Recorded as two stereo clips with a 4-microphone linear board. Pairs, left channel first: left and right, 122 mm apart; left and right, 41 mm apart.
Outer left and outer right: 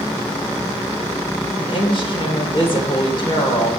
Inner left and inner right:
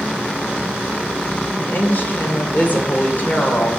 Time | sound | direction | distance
1.6 | a woman speaking | 45° left (ahead or behind) | 2.5 m